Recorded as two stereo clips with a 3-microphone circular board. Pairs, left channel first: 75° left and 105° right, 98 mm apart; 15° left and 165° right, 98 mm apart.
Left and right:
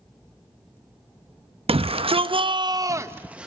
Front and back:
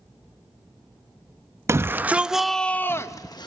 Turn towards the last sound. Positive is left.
turn(degrees=-25)